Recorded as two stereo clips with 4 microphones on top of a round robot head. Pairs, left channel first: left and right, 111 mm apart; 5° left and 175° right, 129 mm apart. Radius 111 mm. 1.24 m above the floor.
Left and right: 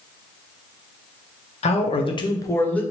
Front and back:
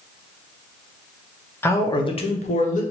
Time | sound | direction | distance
1.6 | a man speaking | 80° left | 0.7 m